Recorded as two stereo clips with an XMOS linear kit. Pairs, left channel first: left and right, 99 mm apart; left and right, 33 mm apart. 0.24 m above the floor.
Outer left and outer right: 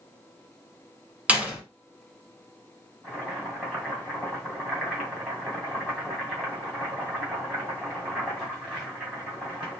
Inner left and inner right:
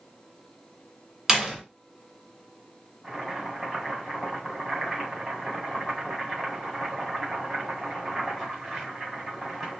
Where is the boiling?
5° right (ahead or behind), 1.9 m.